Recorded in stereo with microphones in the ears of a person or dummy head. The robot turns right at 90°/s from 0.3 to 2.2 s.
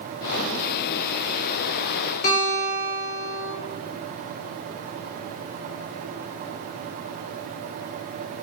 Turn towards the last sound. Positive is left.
turn(degrees=45)  # may be behind; listen again after turning